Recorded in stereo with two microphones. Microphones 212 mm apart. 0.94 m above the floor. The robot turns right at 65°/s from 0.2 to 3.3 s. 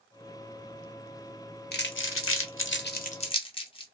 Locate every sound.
1.7 s crumpling: 50° left (ahead or behind), 0.7 m; by 3.8 s 25° left (ahead or behind), 0.7 m